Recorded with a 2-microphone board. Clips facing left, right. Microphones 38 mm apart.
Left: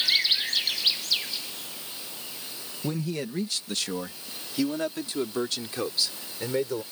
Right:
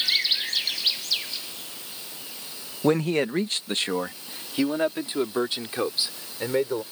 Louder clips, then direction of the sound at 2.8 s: Right 9 dB; 60° right (ahead or behind).